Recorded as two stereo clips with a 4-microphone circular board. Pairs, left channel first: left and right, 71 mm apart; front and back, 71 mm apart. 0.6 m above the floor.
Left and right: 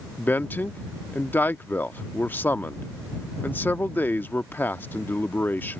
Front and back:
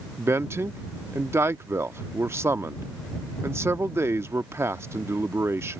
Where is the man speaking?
145° left.